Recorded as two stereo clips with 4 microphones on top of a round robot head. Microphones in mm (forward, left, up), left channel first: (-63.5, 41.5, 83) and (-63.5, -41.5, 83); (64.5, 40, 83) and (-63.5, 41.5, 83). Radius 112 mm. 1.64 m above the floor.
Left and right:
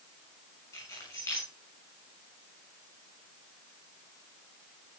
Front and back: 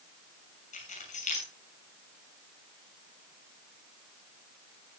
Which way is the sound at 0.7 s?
25° left.